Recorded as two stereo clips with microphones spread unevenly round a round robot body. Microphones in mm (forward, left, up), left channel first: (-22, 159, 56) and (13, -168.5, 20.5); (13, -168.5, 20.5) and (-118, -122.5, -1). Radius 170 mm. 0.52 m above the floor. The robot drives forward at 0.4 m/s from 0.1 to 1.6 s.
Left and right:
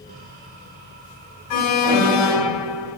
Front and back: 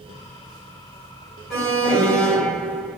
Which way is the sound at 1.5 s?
75° left.